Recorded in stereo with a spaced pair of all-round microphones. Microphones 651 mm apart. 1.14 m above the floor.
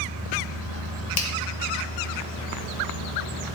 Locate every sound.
1.2 s a finger snap: 65° left (ahead or behind), 1.1 m